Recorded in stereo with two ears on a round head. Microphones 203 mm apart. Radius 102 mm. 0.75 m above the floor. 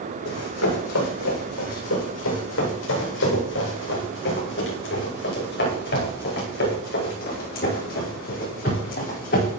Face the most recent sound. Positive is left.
turn(degrees=40)  # may be behind; listen again after turning